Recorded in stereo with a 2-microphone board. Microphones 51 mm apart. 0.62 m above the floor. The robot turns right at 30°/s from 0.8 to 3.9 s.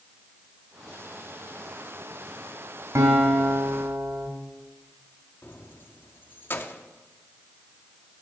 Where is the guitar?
80° right, 2 m; by 4.3 s 65° right (ahead or behind), 2 m.